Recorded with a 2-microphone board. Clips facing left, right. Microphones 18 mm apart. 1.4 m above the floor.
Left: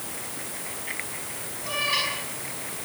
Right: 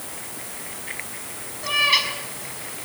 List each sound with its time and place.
1.6 s a cat meowing: 40° right (ahead or behind), 6 m